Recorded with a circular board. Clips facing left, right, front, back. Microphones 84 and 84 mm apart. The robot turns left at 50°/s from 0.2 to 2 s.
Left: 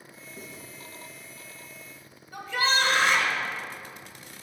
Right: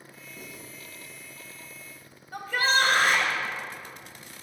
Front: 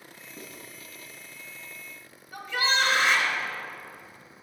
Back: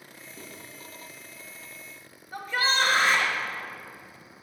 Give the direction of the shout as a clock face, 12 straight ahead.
4 o'clock.